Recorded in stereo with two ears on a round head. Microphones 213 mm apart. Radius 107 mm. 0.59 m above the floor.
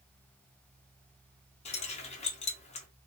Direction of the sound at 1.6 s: 25° left (ahead or behind).